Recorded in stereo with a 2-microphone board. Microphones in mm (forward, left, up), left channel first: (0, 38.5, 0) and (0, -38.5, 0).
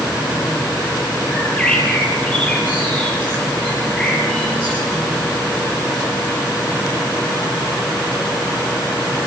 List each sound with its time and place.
1.3 s a bird: 10° left (ahead or behind), 6.5 m